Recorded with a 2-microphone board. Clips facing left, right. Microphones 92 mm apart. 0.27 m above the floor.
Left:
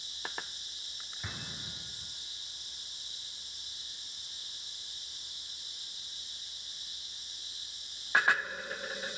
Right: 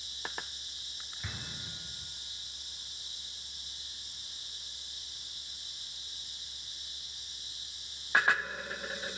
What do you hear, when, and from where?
1.2 s an explosion: 15° left (ahead or behind), 3 m